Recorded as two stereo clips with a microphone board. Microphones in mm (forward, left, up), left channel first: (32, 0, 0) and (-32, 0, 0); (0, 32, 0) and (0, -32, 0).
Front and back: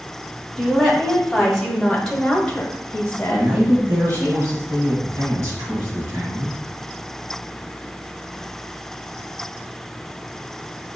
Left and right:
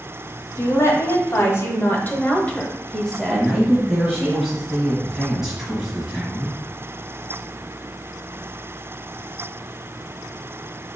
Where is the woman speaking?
100° left, 1.7 m; by 4.3 s 45° right, 1.3 m.